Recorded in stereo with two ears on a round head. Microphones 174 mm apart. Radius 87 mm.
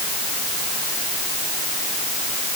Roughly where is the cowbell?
I don't hear a cowbell.